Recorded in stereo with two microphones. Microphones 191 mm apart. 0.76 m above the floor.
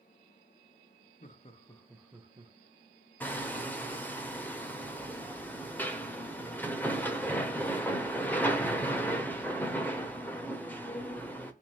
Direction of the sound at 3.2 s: 10° left (ahead or behind).